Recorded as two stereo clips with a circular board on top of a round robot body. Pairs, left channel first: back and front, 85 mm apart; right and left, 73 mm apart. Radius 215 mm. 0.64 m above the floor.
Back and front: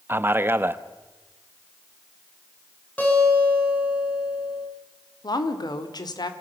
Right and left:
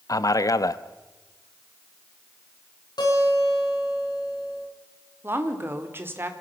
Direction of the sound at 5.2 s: 150° left.